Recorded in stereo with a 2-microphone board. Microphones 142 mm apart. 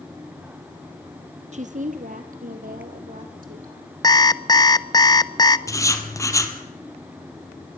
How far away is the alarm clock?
About 0.6 m.